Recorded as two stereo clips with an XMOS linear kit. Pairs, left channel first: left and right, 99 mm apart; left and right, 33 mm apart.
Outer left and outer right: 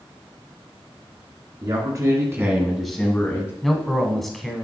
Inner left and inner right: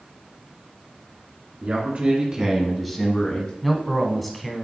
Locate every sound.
1.6 s a man speaking: 45° right (ahead or behind), 2 m; by 3.5 s 30° left (ahead or behind), 1.5 m
3.6 s a man speaking: centre (ahead or behind), 1.1 m